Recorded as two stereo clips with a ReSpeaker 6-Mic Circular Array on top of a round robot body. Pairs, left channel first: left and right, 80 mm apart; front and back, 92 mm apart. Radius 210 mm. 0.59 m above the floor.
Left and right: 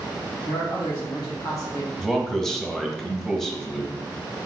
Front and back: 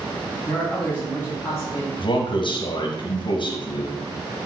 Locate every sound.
0.5 s a man speaking: 75° left, 1.5 m; by 1.9 s 45° left, 1.0 m
2.0 s a man speaking: 5° left, 1.1 m